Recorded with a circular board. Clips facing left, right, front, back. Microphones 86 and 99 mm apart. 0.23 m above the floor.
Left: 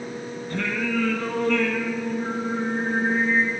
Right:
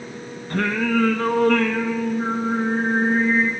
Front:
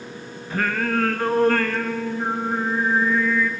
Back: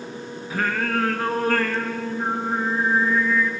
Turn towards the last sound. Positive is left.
turn(degrees=-95)